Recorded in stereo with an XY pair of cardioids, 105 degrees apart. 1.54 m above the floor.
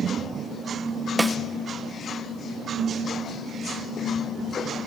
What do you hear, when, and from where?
1.2 s a snare drum: 15° right, 1.0 m